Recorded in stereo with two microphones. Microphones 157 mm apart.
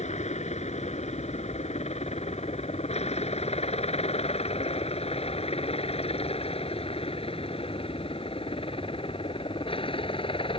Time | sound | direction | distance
0.0 | a helicopter | 45° left (ahead or behind) | ?